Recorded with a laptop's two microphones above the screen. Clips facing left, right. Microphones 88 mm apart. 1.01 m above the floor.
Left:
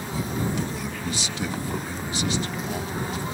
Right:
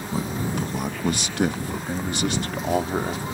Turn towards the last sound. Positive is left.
turn(degrees=-65)  # may be behind; listen again after turning